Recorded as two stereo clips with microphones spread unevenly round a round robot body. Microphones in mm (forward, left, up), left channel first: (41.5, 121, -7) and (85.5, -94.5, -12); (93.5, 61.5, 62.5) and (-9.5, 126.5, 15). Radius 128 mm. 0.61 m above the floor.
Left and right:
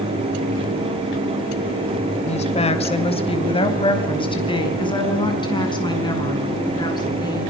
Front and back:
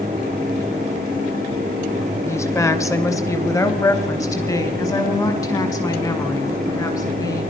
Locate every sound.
2.2 s a woman speaking: 45° left, 2.5 m; by 7.4 s 30° left, 8.5 m